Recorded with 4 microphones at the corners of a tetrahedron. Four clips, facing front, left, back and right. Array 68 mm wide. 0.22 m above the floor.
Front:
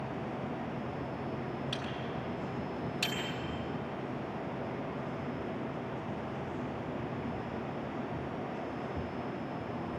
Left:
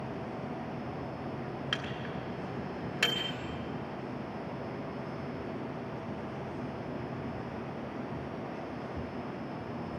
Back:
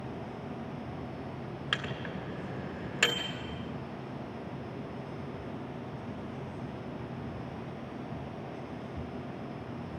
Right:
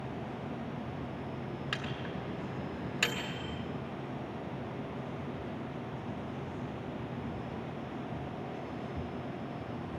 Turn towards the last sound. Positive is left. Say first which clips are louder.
# left 1 dB, back 2 dB
turn(degrees=160)